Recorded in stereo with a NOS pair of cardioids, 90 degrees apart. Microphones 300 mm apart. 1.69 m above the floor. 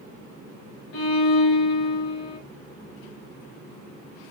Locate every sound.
0.9 s a violin: 45° left, 1.3 m